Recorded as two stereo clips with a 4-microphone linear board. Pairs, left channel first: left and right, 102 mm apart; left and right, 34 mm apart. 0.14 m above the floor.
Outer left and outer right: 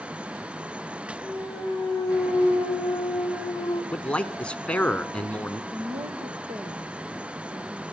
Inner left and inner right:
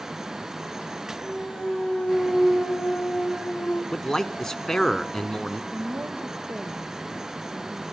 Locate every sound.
1.2 s a clunk: 35° left (ahead or behind), 1.9 m
3.9 s a man speaking: 10° left (ahead or behind), 1.1 m
5.7 s a woman speaking: 65° right (ahead or behind), 4.5 m